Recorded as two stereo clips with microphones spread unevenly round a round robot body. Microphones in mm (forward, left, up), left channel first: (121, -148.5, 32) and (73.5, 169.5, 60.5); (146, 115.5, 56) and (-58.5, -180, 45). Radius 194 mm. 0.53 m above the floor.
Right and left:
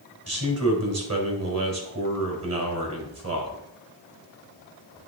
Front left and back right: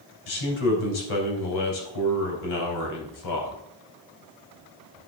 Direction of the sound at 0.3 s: 55° left.